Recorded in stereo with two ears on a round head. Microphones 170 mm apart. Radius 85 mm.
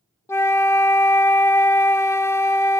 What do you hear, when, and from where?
0.3 s a flute: 15° left (ahead or behind), 0.5 m